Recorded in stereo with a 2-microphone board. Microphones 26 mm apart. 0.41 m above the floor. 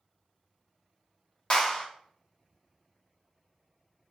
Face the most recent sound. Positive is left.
turn(degrees=45)  # may be behind; listen again after turning